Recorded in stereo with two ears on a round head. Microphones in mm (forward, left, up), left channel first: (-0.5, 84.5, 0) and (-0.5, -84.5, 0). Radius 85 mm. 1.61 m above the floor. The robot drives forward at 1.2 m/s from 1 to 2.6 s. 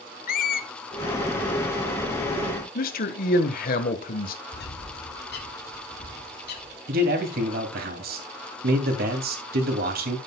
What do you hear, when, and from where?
0.3 s a squeak: 50° left (ahead or behind), 0.9 m
2.8 s a man speaking: 50° left (ahead or behind), 1.5 m
4.5 s a bird: 55° left (ahead or behind), 2.5 m
6.9 s a man speaking: 55° right (ahead or behind), 3 m